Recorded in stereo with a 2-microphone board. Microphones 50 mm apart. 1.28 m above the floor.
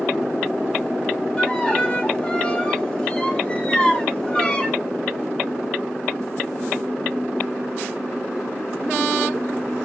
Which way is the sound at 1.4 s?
15° left (ahead or behind).